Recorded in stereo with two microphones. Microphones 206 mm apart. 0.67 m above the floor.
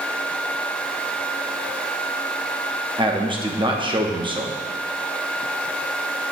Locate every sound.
3.0 s a man speaking: 25° right (ahead or behind), 0.8 m